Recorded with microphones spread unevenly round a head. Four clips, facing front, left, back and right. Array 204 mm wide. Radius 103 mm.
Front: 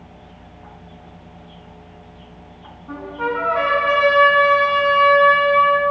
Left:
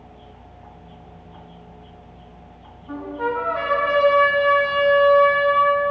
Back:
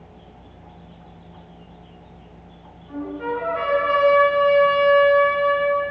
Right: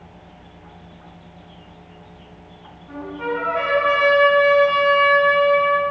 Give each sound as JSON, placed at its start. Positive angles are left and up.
{"t": 2.9, "sound": "a trumpet", "azimuth_deg": 30, "distance_m": 10.0}